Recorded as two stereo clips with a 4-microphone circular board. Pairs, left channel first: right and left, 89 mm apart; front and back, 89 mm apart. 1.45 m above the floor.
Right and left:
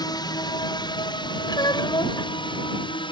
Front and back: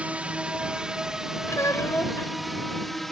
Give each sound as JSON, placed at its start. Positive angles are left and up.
{"t": 0.0, "sound": "a drone", "azimuth_deg": -105}
{"t": 1.5, "sound": "a child speaking", "azimuth_deg": -55}